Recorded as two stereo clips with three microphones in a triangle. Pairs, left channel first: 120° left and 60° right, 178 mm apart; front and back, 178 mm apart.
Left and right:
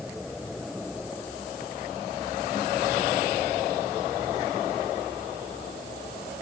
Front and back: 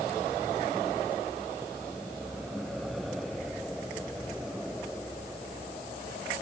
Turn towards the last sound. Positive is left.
No sound to turn to.